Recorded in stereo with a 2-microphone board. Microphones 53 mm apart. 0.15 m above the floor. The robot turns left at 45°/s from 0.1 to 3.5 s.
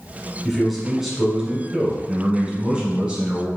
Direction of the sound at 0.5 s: 5° left (ahead or behind).